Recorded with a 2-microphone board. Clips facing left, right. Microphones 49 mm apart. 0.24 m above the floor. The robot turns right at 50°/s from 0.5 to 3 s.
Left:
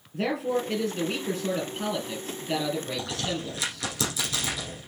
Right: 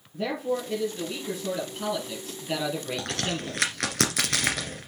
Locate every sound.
0.1 s a man speaking: 90° left, 5 m; by 3.9 s 145° right, 5 m
3.0 s a crack: 65° right (ahead or behind), 2.0 m